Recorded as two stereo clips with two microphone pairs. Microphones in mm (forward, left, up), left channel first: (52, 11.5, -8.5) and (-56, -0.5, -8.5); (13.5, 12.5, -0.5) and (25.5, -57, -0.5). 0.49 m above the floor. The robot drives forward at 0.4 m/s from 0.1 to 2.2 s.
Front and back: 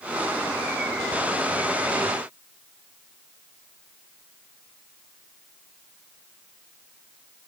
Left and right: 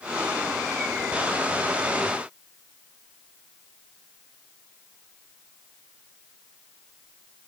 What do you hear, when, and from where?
Only background noise.